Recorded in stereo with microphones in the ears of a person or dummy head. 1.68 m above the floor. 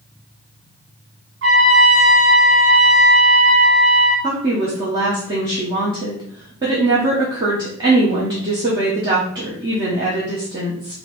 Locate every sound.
1.4 s a trumpet: 50° right (ahead or behind), 2.5 m
4.2 s a woman speaking: 20° right (ahead or behind), 0.7 m